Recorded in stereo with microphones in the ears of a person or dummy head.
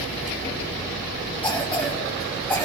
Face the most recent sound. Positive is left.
turn(degrees=10)  # may be behind; listen again after turning